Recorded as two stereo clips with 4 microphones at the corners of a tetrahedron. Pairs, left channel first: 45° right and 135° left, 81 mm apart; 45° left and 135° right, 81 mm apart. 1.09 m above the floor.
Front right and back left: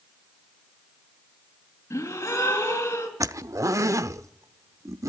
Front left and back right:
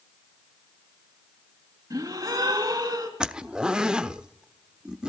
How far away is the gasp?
About 4.5 m.